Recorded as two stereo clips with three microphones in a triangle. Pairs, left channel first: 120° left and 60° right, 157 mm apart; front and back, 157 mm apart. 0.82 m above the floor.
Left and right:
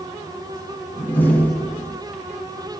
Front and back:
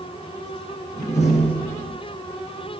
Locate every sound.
0.9 s a door slam: 40° left, 6.5 m